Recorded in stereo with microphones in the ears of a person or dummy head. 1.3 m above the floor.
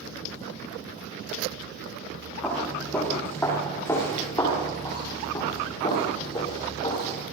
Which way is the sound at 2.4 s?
5° left (ahead or behind).